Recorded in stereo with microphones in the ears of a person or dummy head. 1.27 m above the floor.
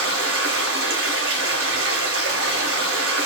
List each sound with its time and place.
0.0 s running water: 70° right (ahead or behind), 0.8 m